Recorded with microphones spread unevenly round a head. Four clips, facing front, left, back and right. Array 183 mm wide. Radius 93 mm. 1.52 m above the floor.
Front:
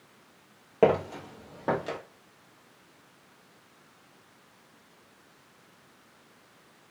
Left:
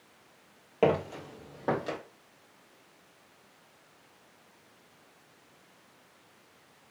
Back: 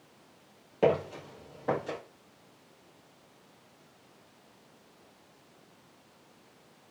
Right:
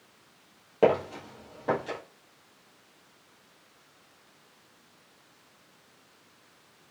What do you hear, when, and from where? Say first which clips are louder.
0.8 s footsteps: right 3 dB, front 3 dB; 5° right, 1.6 m; by 2.0 s 55° left, 2 m